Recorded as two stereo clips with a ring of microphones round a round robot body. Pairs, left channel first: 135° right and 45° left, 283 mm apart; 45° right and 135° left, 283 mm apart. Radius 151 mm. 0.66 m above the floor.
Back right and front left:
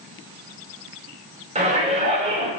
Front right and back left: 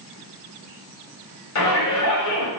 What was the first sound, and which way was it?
A shout, 25° right.